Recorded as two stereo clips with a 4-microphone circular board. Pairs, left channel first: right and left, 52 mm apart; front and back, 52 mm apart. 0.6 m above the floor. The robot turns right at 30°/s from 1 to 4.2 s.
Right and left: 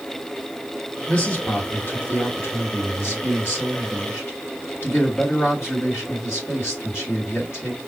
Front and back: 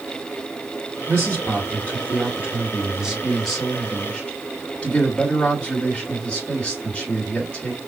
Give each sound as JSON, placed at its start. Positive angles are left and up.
{"t": 1.1, "sound": "a man speaking", "azimuth_deg": -160, "distance_m": 1.7}